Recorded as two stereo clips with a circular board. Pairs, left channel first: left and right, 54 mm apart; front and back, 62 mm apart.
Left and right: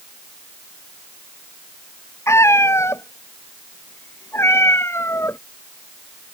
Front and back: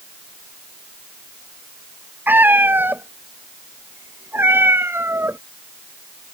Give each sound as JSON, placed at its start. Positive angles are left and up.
{"t": 2.3, "sound": "a cat meowing", "azimuth_deg": 125}